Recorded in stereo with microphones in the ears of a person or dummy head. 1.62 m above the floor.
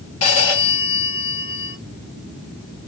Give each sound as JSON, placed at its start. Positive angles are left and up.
{"t": 0.2, "sound": "a phone ringing", "side_deg": 40, "distance_m": 3.0}